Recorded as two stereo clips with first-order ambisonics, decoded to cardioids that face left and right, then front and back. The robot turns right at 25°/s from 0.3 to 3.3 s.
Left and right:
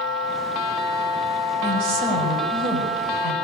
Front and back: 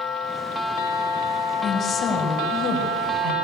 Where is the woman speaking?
70° right, 5.5 m; by 3.5 s 30° right, 5.5 m.